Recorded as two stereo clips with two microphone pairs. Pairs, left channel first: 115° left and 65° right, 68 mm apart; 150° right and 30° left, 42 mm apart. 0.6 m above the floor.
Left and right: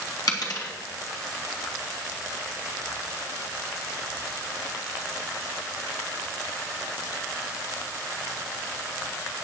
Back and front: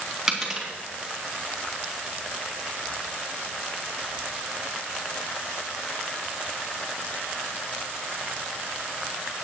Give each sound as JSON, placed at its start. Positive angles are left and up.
{"t": 0.3, "sound": "a dropped coin", "azimuth_deg": 110, "distance_m": 3.0}